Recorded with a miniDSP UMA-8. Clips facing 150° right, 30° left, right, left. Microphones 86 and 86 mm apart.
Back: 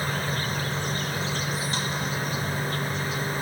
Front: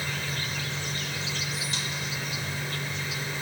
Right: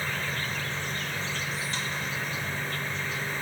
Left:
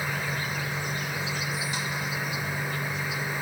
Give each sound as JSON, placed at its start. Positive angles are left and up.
{"t": 0.0, "sound": "an insect", "azimuth_deg": 165, "distance_m": 0.9}